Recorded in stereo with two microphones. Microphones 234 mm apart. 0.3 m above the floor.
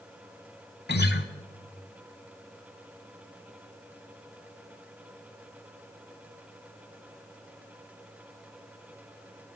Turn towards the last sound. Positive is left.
turn(degrees=45)  # may be behind; listen again after turning